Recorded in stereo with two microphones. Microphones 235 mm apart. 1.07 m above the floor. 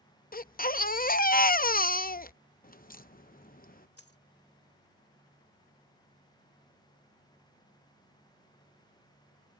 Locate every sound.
0.3 s a baby crying: 40° left (ahead or behind)
2.6 s a crack: 40° left (ahead or behind)
4.0 s a dropped coin: 75° left (ahead or behind)